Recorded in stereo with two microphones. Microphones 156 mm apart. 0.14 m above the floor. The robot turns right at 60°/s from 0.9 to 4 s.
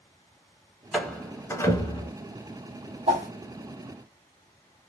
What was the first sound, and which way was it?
A door slam, centre (ahead or behind).